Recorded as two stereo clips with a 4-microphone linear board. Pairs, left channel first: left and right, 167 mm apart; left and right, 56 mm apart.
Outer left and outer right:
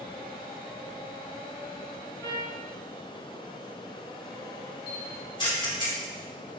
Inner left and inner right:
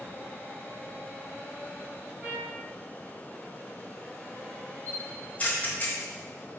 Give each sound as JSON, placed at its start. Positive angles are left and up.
{"t": 2.2, "sound": "a trumpet", "side_deg": -20, "distance_m": 2.5}
{"t": 4.9, "sound": "a camera shutter", "side_deg": 30, "distance_m": 1.1}